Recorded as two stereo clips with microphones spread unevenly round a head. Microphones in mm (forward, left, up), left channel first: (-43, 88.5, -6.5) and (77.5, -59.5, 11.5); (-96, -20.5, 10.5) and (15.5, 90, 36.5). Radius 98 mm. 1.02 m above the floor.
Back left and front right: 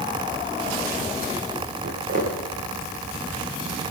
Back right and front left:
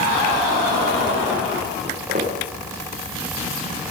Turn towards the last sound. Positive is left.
turn(degrees=-10)